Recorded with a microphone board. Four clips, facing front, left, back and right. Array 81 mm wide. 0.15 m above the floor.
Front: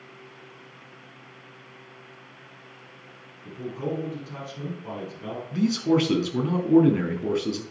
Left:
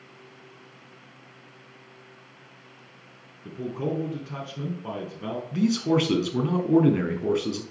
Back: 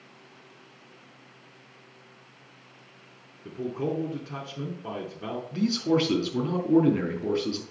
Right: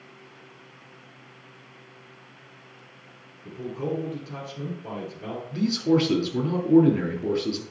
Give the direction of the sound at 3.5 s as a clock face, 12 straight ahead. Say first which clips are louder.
Left 1 dB, back 1 dB; 7 o'clock.